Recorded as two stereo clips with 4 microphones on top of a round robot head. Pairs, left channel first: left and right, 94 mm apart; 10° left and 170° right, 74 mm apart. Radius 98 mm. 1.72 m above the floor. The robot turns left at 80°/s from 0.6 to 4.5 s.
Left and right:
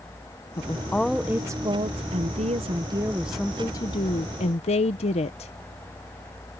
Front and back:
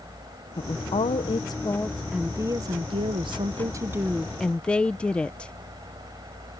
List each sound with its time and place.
0.6 s a woman speaking: 40° left; by 5.5 s 90° left